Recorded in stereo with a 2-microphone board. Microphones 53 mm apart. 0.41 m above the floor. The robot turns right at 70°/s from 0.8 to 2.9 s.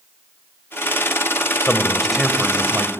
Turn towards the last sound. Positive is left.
turn(degrees=-130)